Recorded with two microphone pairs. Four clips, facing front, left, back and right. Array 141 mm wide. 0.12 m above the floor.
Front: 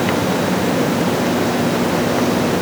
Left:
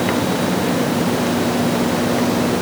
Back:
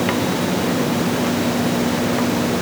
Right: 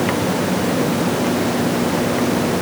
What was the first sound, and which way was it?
Only background noise.